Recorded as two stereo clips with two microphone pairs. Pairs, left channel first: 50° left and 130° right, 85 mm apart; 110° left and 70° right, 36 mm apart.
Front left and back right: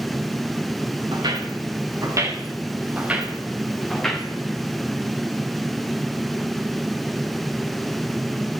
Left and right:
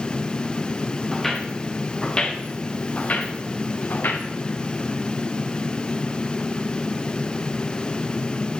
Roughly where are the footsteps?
Behind.